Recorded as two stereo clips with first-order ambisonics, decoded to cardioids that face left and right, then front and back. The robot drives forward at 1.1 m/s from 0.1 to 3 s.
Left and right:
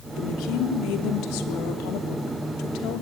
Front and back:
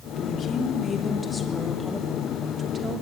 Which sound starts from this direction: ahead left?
A woman speaking, at 0.2 s.